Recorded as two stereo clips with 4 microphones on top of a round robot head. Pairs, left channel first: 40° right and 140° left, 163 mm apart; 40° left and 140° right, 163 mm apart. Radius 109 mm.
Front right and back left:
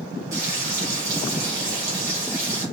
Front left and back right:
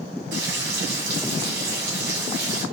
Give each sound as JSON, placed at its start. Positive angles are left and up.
{"t": 0.3, "sound": "frying", "azimuth_deg": -150, "distance_m": 2.5}